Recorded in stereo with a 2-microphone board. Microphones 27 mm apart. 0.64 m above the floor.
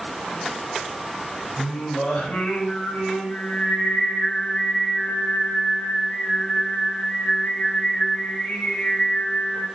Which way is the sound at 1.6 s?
75° left (ahead or behind).